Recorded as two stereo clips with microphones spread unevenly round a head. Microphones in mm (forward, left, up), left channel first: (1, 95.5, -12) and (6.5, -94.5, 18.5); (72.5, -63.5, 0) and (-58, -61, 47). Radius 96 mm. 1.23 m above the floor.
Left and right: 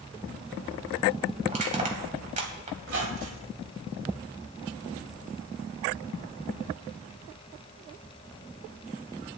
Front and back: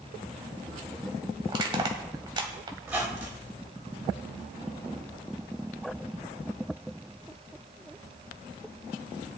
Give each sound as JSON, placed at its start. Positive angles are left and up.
{"t": 1.5, "sound": "crushing", "azimuth_deg": -135, "distance_m": 2.5}
{"t": 2.8, "sound": "a squeak", "azimuth_deg": -110, "distance_m": 3.0}